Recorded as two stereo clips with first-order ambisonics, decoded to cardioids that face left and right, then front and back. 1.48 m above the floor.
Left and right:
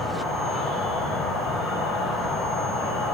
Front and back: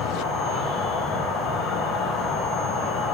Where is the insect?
40° left, 8.5 m.